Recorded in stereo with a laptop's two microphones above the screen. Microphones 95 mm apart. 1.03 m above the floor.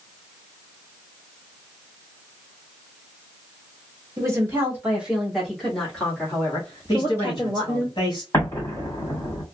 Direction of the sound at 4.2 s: 30° right (ahead or behind).